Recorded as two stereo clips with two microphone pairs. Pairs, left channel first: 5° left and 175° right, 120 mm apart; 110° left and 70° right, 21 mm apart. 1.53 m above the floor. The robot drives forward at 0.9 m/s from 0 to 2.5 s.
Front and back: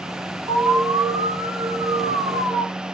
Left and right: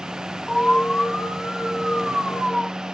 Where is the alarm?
135° left, 4.5 m; by 2.6 s 150° left, 6 m.